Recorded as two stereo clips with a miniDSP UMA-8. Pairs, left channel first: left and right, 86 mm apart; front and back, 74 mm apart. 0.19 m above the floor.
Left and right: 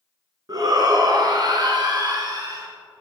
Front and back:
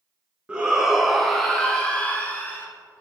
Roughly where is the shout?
Right.